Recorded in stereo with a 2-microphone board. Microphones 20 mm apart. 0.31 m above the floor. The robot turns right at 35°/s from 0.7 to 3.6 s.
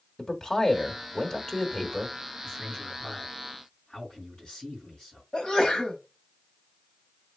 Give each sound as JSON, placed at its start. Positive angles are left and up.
{"t": 0.2, "sound": "a man speaking", "side_deg": 20, "distance_m": 1.0}
{"t": 2.4, "sound": "a man speaking", "azimuth_deg": 25, "distance_m": 3.5}
{"t": 5.3, "sound": "a sneeze", "side_deg": 45, "distance_m": 1.4}